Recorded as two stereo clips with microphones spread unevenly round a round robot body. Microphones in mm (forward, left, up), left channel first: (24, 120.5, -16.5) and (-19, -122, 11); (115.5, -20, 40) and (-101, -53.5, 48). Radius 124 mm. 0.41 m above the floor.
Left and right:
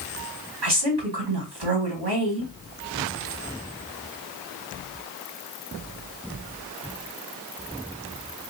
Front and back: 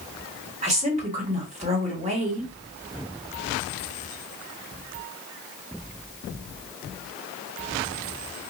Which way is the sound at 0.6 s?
120° right.